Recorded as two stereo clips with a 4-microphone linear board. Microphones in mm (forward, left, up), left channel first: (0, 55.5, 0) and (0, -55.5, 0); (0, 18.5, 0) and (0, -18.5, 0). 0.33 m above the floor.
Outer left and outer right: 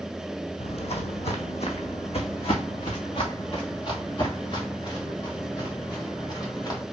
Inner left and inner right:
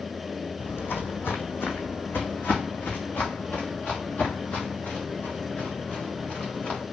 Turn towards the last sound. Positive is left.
turn(degrees=35)  # may be behind; listen again after turning